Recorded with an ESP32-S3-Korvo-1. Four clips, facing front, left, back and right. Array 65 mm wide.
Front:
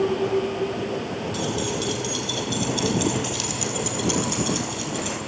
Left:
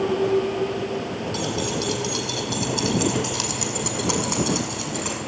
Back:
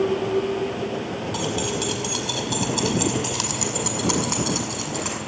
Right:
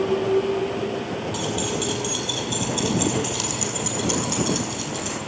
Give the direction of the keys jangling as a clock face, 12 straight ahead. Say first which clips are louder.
Left 1 dB, back 1 dB; 6 o'clock.